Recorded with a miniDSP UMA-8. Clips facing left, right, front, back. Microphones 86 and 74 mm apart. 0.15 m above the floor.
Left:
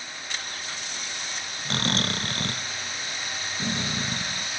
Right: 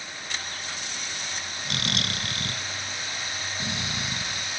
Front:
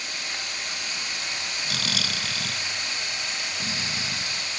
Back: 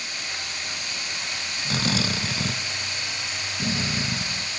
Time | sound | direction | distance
1.6 | snoring | 130° left | ?